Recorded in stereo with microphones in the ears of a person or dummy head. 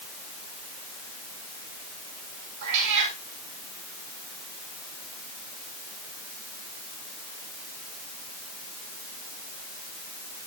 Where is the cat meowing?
65° right (ahead or behind), 3 m.